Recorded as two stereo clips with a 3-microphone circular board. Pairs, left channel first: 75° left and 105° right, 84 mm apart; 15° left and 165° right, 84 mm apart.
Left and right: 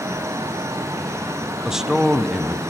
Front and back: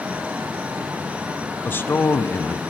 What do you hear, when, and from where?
1.6 s a man speaking: 25° right, 1.1 m